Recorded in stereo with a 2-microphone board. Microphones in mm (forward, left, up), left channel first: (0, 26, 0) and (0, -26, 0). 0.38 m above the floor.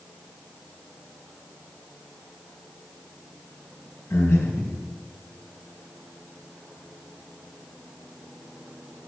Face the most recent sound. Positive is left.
turn(degrees=60)  # may be behind; listen again after turning